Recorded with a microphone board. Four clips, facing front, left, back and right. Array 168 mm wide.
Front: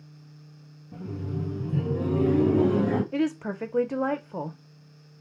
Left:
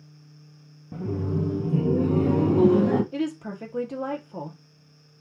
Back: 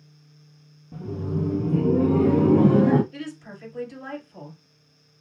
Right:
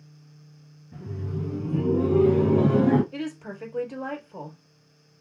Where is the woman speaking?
15° left, 0.9 m.